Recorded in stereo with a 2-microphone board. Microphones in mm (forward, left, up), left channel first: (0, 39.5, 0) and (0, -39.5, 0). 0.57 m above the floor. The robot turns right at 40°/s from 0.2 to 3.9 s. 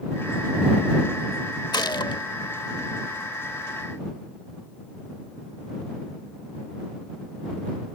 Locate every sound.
1.7 s a gunshot: 65° left (ahead or behind); by 2.2 s 85° left